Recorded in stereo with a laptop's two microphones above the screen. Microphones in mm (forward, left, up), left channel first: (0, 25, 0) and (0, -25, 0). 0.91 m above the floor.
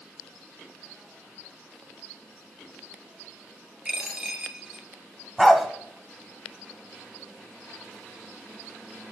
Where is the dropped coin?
20° right (ahead or behind), 1.0 m.